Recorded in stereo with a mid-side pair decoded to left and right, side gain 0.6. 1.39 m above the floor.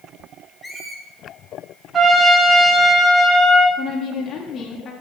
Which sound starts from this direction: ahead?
A squeak, at 0.6 s.